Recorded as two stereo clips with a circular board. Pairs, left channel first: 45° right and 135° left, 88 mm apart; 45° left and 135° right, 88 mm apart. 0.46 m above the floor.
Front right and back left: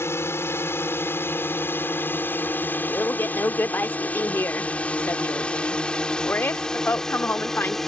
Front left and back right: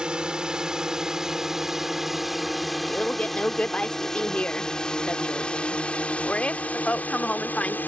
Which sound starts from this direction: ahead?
A man speaking, at 2.9 s.